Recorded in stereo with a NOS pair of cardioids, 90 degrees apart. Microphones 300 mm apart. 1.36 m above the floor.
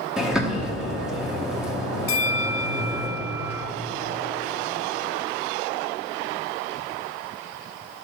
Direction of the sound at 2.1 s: 50° left.